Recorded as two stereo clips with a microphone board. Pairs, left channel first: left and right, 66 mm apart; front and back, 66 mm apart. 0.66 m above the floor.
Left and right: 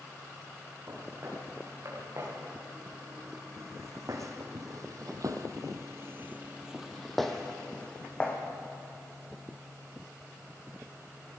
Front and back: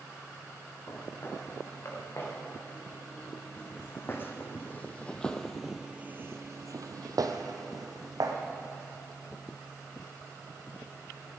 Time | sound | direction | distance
0.9 | footsteps | 45° right | 5.5 m